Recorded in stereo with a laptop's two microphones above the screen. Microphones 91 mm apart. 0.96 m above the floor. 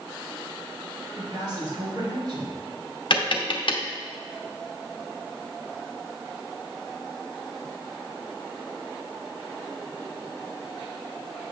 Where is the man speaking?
45° right (ahead or behind), 3 m.